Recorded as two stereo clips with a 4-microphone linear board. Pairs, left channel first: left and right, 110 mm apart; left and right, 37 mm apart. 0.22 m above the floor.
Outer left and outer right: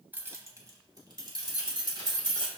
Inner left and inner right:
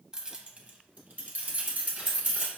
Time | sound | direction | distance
0.1 | keys jangling | 20° right (ahead or behind) | 0.8 m